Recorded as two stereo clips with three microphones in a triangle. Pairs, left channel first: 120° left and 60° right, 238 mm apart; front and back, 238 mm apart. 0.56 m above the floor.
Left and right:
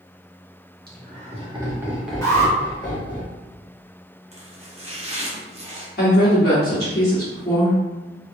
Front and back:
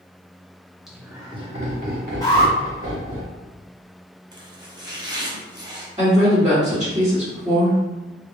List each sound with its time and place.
0.9 s laughter: 90° right, 1.2 m; by 3.2 s 175° right, 1.8 m
2.2 s an alarm: 60° left, 1.9 m
4.3 s chopping: 110° right, 0.8 m
6.0 s a woman speaking: 120° left, 1.5 m